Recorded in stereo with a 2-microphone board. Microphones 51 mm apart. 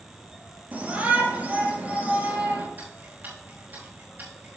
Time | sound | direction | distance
0.7 | a shout | 30° right (ahead or behind) | 4.5 m
2.8 | ticking | 35° right (ahead or behind) | 5 m